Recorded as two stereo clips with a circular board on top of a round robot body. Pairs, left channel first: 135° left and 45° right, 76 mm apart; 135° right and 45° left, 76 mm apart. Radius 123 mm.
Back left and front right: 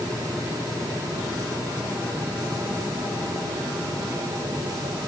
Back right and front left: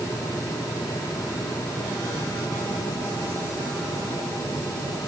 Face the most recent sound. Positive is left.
No sound to turn to.